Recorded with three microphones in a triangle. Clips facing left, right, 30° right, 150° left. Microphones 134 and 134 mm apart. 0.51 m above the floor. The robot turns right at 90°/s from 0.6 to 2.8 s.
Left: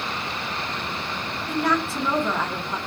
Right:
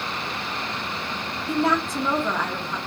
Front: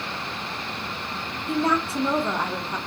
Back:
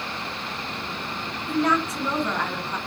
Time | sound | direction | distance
1.5 | a woman speaking | 70° right | 0.7 m